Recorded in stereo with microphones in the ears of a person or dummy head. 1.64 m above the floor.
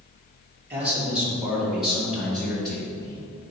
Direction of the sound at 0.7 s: 10° right (ahead or behind).